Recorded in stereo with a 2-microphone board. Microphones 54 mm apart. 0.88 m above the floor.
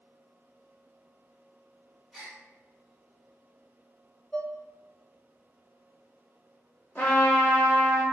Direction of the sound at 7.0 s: 45° left (ahead or behind).